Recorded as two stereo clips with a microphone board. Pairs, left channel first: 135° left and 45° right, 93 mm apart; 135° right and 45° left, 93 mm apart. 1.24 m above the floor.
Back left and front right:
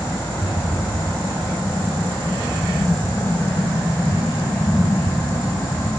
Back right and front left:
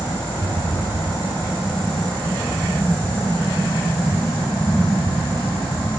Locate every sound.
0.3 s a rattle: 85° left, 7 m